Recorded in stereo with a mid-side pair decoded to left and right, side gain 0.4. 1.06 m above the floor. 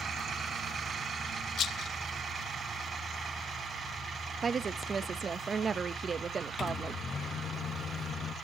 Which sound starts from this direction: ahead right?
A woman speaking, at 4.4 s.